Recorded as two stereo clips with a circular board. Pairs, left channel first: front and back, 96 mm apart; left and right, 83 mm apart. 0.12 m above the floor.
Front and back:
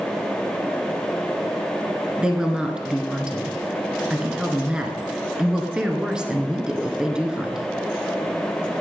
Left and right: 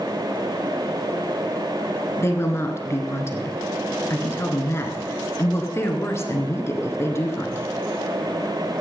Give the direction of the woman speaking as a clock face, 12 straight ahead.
8 o'clock.